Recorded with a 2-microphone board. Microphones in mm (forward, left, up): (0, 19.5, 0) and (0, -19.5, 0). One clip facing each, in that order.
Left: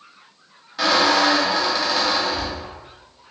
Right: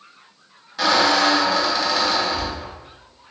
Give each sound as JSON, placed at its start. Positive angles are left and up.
{"t": 0.8, "sound": "a squeak", "side_deg": 5, "distance_m": 0.8}